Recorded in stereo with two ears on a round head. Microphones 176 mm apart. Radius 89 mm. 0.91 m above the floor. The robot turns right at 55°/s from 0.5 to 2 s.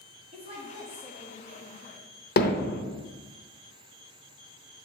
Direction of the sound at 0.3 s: 35° right.